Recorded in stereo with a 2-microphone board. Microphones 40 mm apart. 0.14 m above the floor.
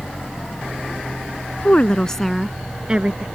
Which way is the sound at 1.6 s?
40° left (ahead or behind).